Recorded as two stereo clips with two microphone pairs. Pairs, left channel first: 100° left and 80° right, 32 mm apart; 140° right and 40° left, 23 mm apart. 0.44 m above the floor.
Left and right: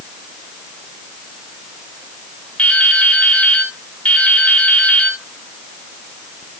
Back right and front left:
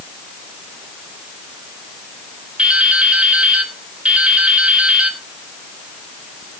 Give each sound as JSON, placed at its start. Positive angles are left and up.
{"t": 2.6, "sound": "dripping", "azimuth_deg": 55, "distance_m": 2.0}